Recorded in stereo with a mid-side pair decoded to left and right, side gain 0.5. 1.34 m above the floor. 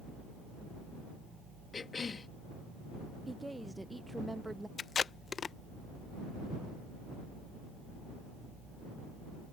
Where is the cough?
30° left.